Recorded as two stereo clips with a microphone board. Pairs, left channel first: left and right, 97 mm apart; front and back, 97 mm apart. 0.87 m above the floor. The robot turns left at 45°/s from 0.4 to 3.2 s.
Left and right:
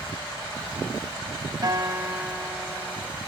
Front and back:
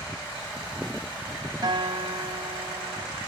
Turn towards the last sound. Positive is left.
turn(degrees=150)